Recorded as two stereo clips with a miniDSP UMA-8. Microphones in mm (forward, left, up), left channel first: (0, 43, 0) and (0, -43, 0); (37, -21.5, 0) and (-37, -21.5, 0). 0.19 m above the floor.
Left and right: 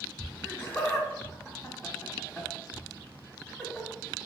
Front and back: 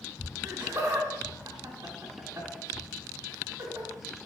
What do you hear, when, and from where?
0.4 s laughter: 150° left, 1.5 m